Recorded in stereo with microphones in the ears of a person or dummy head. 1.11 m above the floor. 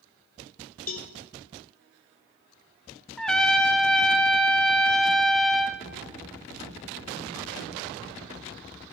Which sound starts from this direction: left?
A cowbell, at 0.9 s.